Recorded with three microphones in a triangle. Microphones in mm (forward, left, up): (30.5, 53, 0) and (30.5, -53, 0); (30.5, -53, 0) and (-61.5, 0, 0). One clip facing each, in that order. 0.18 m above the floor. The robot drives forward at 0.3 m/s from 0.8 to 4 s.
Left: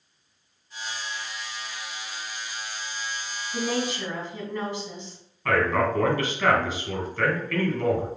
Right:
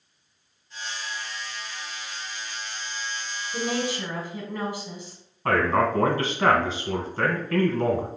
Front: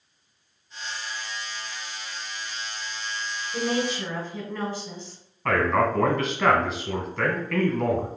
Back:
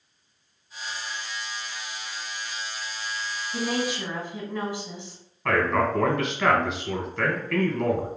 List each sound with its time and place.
3.5 s a woman speaking: 145° right, 1.3 m; by 5.2 s 155° right, 1.4 m
5.5 s a man speaking: 120° right, 1.2 m